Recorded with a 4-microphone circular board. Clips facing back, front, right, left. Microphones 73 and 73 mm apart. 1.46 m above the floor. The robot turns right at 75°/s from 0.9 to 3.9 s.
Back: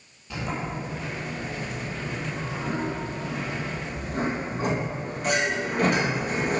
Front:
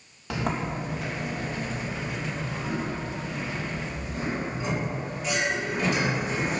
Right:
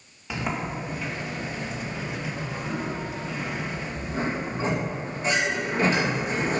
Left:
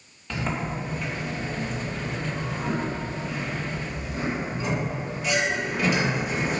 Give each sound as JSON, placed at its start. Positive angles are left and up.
{"t": 0.3, "sound": "a sliding door", "azimuth_deg": -10, "distance_m": 2.5}